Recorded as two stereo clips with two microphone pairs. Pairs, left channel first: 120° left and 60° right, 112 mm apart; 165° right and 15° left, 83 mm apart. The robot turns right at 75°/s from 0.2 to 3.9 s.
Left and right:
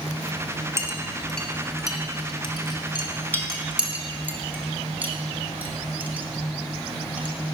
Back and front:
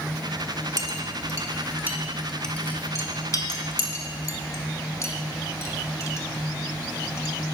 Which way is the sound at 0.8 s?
10° right.